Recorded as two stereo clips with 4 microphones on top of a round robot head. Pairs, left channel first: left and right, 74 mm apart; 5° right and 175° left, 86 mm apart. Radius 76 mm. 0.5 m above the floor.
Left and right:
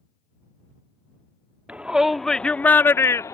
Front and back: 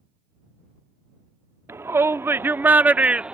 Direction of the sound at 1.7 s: 150° right.